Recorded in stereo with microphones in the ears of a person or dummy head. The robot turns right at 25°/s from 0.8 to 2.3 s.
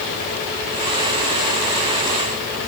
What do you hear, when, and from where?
Only background noise.